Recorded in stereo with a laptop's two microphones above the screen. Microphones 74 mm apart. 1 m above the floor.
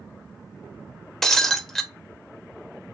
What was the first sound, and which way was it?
Breaking glass, 5° left (ahead or behind).